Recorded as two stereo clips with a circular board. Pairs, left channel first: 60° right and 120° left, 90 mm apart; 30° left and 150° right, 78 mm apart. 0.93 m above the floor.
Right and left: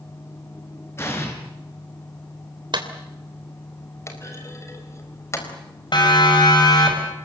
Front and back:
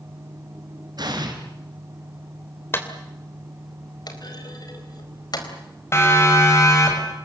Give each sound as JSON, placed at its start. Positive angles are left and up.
{"t": 1.0, "sound": "an explosion", "azimuth_deg": -120, "distance_m": 4.5}
{"t": 2.7, "sound": "a clap", "azimuth_deg": 90, "distance_m": 3.0}
{"t": 4.1, "sound": "a clunk", "azimuth_deg": 0, "distance_m": 4.0}
{"t": 5.9, "sound": "a siren", "azimuth_deg": -25, "distance_m": 5.0}